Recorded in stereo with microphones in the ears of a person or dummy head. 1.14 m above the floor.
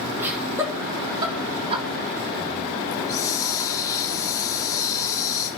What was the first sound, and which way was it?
Laughter, 10° right (ahead or behind).